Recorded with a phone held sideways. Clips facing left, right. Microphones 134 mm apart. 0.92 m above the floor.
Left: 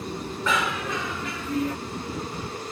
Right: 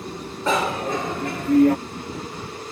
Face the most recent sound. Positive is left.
turn(degrees=-65)  # may be behind; listen again after turning